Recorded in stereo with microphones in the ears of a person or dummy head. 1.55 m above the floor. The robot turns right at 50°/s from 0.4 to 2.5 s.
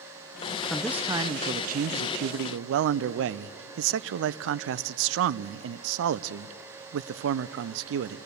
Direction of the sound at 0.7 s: 175° left.